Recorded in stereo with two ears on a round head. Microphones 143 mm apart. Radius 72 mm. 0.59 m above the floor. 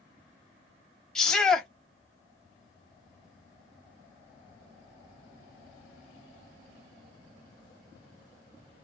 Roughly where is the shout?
Centre.